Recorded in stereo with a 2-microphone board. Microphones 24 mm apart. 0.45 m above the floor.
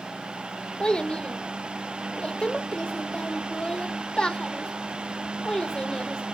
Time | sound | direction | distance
0.8 | a child speaking | 40° left (ahead or behind) | 0.9 m